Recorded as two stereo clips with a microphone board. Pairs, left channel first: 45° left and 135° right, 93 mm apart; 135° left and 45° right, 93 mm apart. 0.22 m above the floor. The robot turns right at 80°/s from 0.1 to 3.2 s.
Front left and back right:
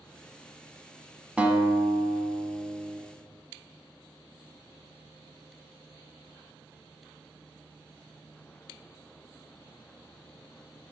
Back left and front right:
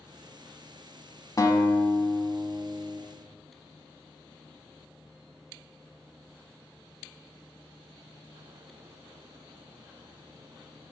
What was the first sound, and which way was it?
A guitar, 155° left.